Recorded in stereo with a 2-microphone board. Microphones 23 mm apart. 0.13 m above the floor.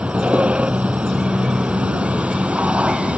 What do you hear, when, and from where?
0.0 s a vehicle: 70° right (ahead or behind)